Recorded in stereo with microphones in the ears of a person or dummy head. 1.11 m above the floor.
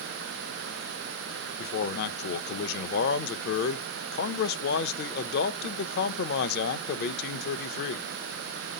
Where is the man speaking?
55° left (ahead or behind), 0.6 m.